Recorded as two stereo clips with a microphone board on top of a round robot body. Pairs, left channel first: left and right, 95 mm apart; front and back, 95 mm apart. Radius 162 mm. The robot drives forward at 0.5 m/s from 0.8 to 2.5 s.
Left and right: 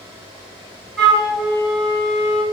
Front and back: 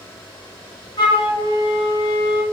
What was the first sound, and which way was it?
A flute, 5° left.